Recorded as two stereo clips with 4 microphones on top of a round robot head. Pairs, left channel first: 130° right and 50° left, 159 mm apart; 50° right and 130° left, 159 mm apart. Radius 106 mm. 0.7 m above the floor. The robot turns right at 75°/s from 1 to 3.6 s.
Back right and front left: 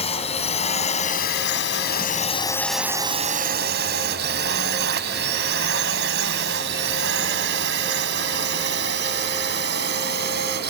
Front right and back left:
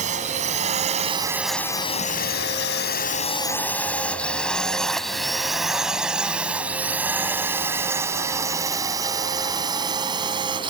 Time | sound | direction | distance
0.0 | a drone | 175° left | ?